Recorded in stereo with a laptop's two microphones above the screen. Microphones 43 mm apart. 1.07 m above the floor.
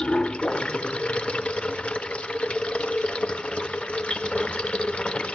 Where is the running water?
30° left (ahead or behind), 0.8 m.